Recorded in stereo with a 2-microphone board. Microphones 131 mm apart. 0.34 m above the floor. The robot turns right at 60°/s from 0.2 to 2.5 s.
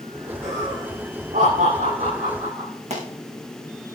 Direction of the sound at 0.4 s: 10° right (ahead or behind).